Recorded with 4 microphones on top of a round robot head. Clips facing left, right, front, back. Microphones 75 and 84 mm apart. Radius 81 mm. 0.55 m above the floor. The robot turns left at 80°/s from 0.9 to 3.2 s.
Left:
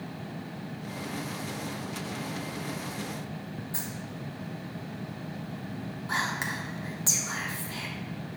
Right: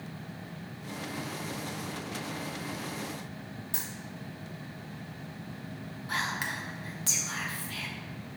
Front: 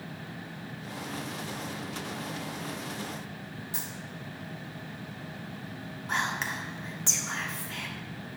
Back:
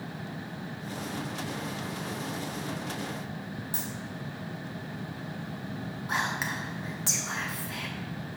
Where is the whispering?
100° left, 1.2 m.